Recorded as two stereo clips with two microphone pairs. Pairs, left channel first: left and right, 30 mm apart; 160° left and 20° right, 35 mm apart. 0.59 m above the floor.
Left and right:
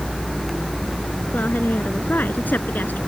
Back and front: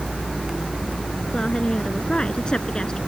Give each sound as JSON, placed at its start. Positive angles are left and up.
{"t": 1.3, "sound": "a woman speaking", "azimuth_deg": 100}